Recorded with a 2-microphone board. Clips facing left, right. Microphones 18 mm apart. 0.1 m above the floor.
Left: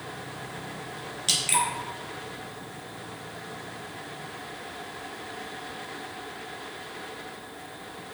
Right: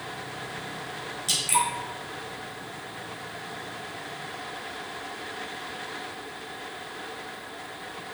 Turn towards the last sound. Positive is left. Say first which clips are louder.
# even
turn(degrees=30)  # may be behind; listen again after turning